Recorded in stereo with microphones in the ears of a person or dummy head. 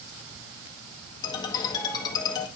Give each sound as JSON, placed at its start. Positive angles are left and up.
{"t": 1.2, "sound": "a ringtone", "side_deg": 25, "distance_m": 1.6}